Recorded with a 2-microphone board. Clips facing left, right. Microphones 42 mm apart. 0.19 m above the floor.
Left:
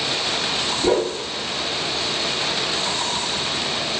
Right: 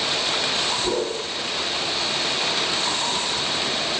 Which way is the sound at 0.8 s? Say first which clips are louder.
Left 5 dB; 70° left (ahead or behind).